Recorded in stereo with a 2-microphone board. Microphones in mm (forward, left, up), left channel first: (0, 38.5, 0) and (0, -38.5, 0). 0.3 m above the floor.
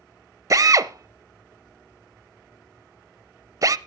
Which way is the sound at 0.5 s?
45° right (ahead or behind).